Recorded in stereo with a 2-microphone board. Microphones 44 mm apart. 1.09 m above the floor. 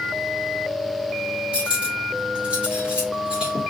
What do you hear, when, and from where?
1.5 s cutlery clinking: 25° right (ahead or behind), 1.5 m